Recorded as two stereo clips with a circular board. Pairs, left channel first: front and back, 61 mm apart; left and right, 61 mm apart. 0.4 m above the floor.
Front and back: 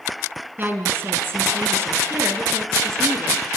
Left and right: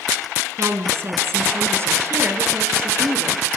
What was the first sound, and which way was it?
A woman speaking, 125° right.